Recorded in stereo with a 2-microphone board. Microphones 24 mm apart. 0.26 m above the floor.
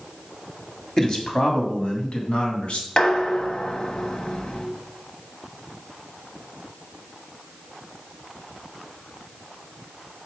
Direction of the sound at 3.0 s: 45° left (ahead or behind).